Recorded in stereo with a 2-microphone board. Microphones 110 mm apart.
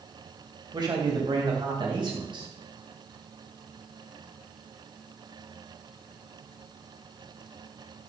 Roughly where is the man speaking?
Right.